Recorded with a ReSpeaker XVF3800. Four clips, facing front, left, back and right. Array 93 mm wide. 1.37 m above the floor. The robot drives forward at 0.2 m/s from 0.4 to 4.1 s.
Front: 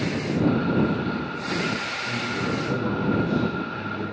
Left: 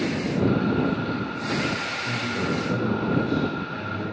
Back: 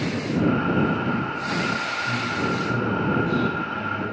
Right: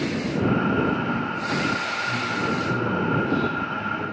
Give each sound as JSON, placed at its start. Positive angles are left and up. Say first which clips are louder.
{"t": 2.0, "sound": "a man speaking", "louder": "even, back 1 dB", "azimuth_deg": 65, "distance_m": 6.5}